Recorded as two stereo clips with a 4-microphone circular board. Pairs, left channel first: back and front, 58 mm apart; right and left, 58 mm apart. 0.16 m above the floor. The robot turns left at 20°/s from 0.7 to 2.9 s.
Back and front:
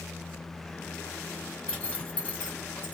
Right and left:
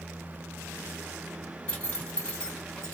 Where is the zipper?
140° right, 1.6 m; by 3.0 s 165° right, 1.6 m.